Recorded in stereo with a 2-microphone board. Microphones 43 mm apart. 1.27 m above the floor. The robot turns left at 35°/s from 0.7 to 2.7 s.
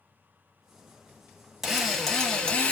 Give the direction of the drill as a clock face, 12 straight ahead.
6 o'clock.